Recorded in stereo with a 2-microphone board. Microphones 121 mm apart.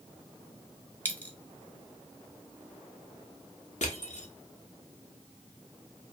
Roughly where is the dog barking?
I don't hear a dog barking.